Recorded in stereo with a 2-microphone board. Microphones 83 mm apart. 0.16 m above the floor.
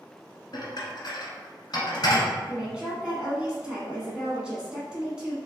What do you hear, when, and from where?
0.5 s dishes clattering: 55° left (ahead or behind), 1.2 m
2.5 s a woman speaking: 10° right (ahead or behind), 1.1 m